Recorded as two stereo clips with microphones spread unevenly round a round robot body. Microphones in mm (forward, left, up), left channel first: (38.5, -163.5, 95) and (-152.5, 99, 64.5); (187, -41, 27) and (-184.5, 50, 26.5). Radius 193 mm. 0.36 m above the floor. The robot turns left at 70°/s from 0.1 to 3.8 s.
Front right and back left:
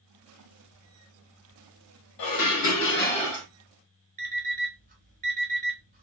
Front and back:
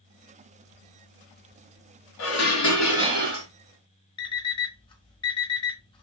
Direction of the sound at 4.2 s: 65° left.